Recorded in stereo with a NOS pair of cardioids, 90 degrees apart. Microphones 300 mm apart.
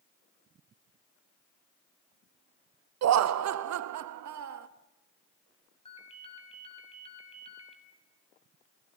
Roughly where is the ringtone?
Ahead.